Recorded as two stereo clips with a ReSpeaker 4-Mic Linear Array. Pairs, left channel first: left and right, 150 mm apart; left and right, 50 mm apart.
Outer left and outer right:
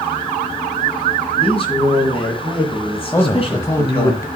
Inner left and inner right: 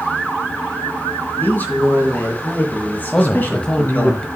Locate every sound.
1.4 s a man speaking: 40° left (ahead or behind), 3 m
3.1 s a man speaking: 20° left (ahead or behind), 1.0 m